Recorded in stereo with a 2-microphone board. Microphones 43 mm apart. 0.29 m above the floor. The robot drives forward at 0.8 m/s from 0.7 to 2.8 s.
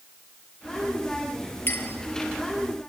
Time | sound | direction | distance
1.7 | a clink | 60° left (ahead or behind) | 3.5 m